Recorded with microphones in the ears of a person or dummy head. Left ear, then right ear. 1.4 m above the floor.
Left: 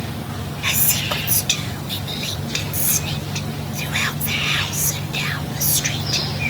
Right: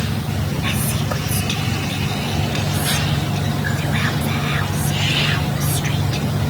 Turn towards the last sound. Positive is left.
turn(degrees=25)  # may be behind; listen again after turning